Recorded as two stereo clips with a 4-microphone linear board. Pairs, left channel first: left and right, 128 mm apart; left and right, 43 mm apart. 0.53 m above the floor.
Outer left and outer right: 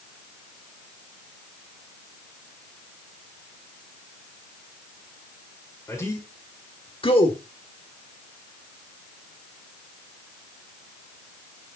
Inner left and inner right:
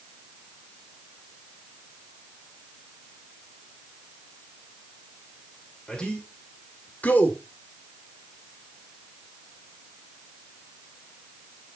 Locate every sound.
5.9 s a man speaking: 20° left (ahead or behind), 1.9 m; by 7.4 s 45° left (ahead or behind), 1.6 m